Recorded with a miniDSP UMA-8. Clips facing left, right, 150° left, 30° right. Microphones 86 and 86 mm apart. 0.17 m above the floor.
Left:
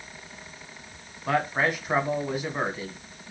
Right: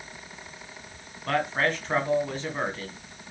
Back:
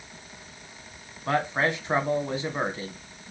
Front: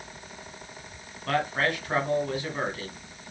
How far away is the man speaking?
About 1.6 m.